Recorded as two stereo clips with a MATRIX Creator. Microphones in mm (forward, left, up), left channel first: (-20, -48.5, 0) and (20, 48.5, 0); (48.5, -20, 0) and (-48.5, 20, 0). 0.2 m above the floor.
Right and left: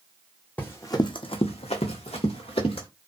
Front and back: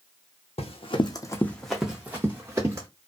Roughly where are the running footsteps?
Ahead right.